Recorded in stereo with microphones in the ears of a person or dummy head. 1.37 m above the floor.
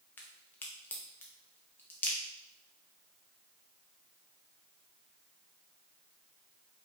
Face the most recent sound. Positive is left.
turn(degrees=10)  # may be behind; listen again after turning